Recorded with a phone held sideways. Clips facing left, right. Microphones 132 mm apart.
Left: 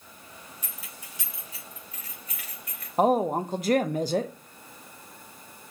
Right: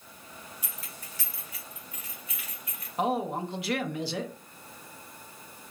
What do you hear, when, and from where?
0.6 s keys jangling: 10° right (ahead or behind), 0.9 m; by 2.9 s 45° left (ahead or behind), 2.5 m
3.0 s a woman speaking: 45° left (ahead or behind), 0.5 m